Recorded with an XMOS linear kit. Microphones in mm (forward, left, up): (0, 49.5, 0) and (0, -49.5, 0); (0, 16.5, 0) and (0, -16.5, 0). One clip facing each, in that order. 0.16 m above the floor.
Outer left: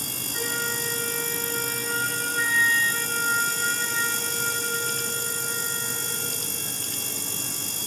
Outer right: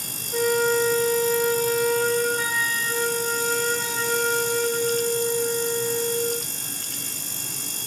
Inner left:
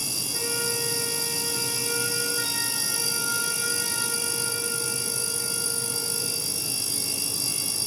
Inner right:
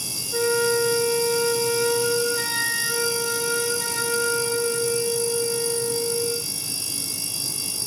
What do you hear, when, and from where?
0.3 s a flute: 75° right (ahead or behind), 0.9 m